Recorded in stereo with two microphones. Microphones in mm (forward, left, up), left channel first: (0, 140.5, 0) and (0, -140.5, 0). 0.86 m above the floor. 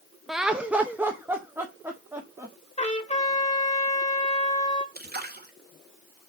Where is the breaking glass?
I don't hear breaking glass.